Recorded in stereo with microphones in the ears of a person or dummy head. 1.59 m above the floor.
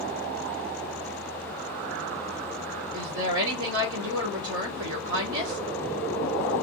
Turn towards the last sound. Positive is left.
turn(degrees=-75)  # may be behind; listen again after turning